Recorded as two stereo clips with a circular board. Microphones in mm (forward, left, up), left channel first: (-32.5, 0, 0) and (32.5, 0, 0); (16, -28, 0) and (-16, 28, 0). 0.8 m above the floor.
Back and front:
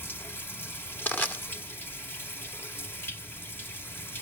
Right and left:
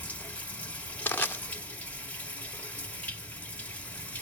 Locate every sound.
0.0 s running water: 125° right, 1.6 m
1.1 s crushing: 120° right, 1.9 m